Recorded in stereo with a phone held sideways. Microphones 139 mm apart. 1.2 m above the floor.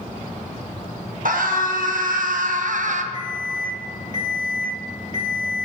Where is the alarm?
60° right (ahead or behind), 3 m.